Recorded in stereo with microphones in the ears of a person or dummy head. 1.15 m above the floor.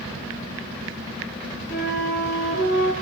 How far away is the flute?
About 6.5 m.